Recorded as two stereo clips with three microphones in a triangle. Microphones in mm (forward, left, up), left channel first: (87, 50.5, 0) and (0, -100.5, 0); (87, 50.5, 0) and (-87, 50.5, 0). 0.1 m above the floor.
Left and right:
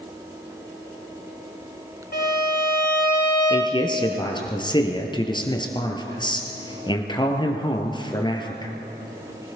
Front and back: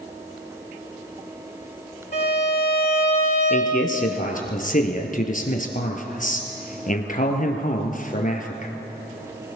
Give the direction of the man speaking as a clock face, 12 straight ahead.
12 o'clock.